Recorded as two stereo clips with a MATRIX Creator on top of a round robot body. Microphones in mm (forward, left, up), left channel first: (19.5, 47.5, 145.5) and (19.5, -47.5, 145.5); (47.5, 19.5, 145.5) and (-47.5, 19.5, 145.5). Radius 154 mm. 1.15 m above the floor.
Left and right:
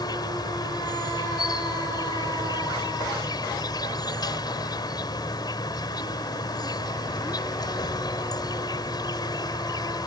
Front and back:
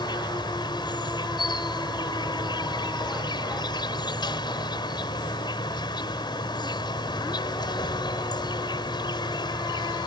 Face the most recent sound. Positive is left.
turn(degrees=45)